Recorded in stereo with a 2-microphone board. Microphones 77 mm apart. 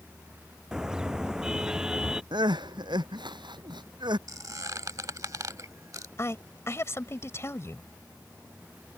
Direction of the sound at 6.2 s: 40° left (ahead or behind).